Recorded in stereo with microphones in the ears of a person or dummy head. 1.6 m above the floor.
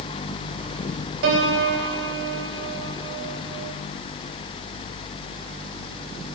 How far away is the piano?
About 3.5 m.